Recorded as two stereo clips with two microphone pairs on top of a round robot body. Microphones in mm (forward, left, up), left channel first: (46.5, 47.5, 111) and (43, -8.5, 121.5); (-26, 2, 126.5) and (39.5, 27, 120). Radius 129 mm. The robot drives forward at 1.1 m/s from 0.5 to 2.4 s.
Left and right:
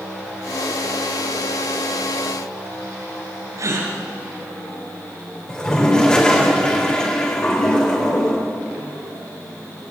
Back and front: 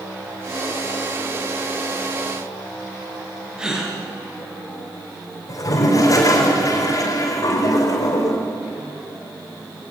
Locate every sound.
3.6 s a gasp: 60° right, 4.5 m
5.5 s a toilet flushing: 160° left, 4.5 m